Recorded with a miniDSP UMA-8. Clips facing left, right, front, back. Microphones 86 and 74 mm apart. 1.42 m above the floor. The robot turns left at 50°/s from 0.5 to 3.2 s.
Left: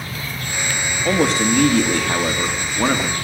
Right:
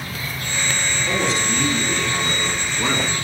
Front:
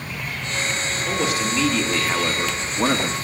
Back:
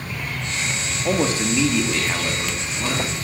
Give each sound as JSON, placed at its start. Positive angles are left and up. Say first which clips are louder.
{"t": 1.1, "sound": "a man speaking", "louder": "left 7 dB, back 4 dB", "azimuth_deg": 135, "distance_m": 2.0}